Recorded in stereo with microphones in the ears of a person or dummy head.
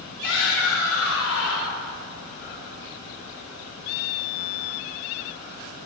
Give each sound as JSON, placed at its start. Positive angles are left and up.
{"t": 0.2, "sound": "a shout", "side_deg": 70, "distance_m": 4.5}